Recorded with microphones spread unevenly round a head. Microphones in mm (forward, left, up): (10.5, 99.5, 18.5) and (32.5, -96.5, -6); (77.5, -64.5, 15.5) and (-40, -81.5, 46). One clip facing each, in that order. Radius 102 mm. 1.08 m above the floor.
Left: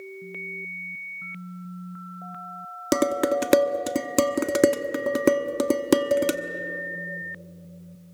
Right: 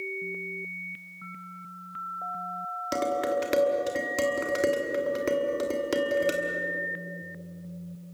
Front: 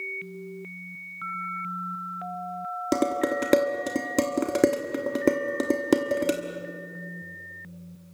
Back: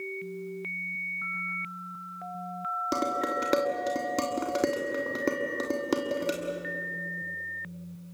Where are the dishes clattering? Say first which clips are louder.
Left 5 dB, front 6 dB; 75° left, 1.2 m.